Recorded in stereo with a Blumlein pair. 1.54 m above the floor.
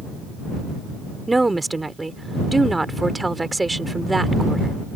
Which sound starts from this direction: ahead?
A woman speaking, at 1.3 s.